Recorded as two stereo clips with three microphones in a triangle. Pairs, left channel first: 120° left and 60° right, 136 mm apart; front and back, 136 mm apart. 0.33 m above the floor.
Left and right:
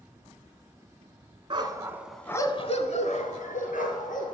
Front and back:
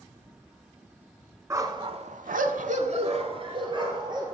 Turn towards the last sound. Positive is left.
turn(degrees=125)